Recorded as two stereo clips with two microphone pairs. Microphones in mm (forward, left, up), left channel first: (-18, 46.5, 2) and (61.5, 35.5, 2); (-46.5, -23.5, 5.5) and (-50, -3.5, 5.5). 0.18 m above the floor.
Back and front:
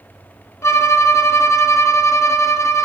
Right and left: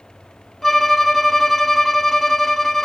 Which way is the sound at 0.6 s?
160° right.